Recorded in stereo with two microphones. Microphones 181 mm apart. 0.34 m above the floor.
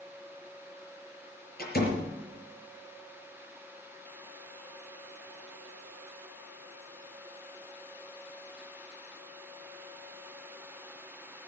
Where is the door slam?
60° left (ahead or behind), 5.5 m.